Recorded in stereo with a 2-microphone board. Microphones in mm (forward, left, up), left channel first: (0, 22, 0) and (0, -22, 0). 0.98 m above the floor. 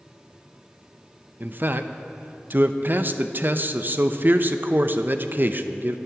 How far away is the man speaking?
About 0.6 m.